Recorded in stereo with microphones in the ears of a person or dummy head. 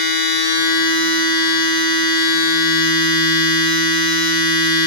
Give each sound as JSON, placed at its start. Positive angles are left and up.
{"t": 0.0, "sound": "a machine running", "side_deg": 75, "distance_m": 4.0}